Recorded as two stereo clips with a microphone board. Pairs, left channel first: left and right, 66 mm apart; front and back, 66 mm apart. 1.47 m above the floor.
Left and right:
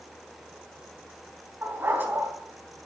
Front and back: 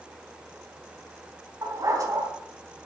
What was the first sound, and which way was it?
A dog barking, 145° right.